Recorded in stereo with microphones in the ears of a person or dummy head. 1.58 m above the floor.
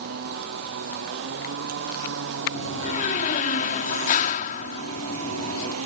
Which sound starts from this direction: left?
A door slam, at 2.5 s.